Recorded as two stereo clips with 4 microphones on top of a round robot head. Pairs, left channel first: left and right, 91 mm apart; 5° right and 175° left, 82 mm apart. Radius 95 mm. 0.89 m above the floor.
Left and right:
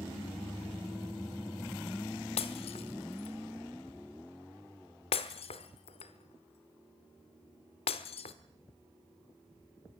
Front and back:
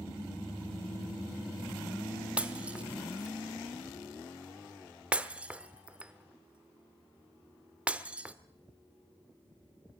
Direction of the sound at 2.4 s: 100° left.